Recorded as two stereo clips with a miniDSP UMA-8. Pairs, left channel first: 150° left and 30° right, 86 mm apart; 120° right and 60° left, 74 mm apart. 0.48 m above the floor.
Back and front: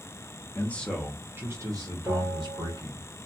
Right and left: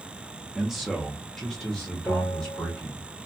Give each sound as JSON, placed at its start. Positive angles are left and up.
{"t": 0.6, "sound": "a man speaking", "azimuth_deg": 140, "distance_m": 0.8}
{"t": 2.1, "sound": "a bell", "azimuth_deg": -80, "distance_m": 1.6}